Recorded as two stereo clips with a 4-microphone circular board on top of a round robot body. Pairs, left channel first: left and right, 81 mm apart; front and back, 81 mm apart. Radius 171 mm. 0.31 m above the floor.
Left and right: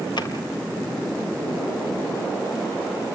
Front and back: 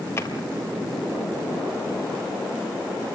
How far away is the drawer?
About 3 m.